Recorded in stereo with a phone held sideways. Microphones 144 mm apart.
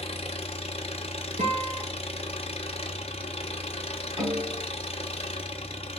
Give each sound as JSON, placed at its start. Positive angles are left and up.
{"t": 0.0, "sound": "an engine running", "side_deg": 45, "distance_m": 0.7}
{"t": 1.4, "sound": "a guitar", "side_deg": -60, "distance_m": 1.6}
{"t": 4.2, "sound": "a snare drum", "side_deg": -40, "distance_m": 3.0}